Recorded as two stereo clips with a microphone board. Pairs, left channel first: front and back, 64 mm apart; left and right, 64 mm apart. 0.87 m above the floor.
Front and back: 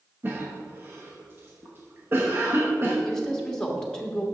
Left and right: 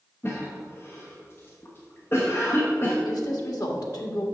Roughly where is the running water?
No running water in this recording.